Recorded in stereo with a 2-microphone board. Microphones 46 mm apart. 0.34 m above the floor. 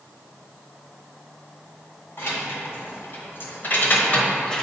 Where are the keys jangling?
60° left (ahead or behind), 1.8 m; by 4.6 s 15° left (ahead or behind), 0.9 m.